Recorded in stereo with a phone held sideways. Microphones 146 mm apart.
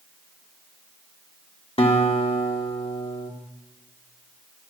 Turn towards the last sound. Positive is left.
turn(degrees=40)  # may be behind; listen again after turning